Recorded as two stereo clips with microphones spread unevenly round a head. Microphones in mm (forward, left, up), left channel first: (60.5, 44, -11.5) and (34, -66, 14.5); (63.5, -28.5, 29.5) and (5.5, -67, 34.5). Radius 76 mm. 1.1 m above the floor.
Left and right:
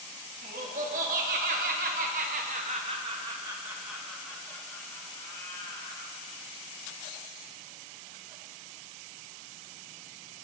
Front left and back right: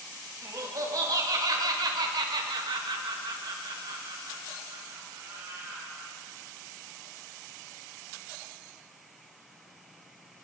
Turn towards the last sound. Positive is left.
turn(degrees=140)